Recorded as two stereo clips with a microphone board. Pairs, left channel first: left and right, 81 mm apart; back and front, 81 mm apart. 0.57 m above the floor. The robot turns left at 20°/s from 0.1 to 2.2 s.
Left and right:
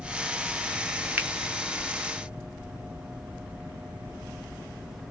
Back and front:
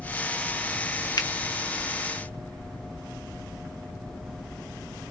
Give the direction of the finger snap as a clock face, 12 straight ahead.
5 o'clock.